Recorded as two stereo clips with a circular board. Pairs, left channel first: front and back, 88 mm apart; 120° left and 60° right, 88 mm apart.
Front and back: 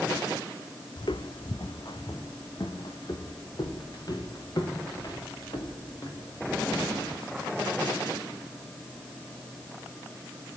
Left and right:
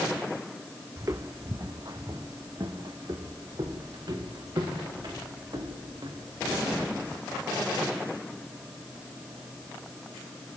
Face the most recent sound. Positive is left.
turn(degrees=-35)